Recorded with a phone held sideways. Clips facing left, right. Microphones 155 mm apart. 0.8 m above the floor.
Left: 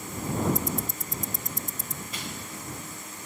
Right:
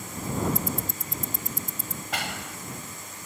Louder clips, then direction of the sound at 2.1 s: Right 8 dB; 80° right.